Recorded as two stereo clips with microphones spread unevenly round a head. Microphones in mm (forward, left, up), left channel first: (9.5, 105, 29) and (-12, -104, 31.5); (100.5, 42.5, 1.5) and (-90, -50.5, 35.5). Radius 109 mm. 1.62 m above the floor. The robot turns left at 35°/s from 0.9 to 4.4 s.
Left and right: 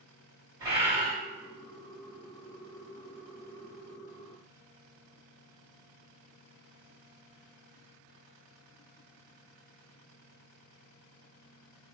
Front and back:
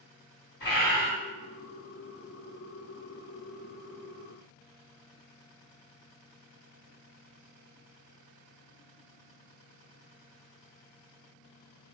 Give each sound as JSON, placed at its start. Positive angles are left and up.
{"t": 0.6, "sound": "a bird", "azimuth_deg": -20, "distance_m": 1.6}